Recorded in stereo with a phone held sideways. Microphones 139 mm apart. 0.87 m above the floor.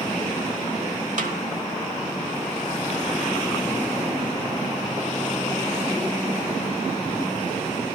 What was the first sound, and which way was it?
A snare drum, 65° right (ahead or behind).